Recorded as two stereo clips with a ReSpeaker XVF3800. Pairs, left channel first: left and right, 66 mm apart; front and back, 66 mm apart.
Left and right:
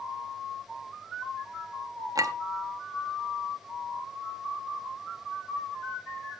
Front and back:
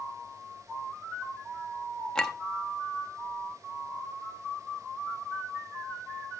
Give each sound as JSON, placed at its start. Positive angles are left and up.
{"t": 2.1, "sound": "a clink", "azimuth_deg": -80, "distance_m": 0.8}